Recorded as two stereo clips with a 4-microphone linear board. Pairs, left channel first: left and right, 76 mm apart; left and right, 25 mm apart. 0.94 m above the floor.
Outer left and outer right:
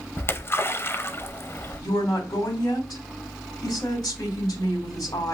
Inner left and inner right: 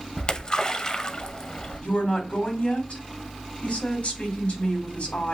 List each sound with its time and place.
0.2 s a splash: 30° left (ahead or behind), 0.5 m
1.8 s a woman speaking: 60° left (ahead or behind), 2.5 m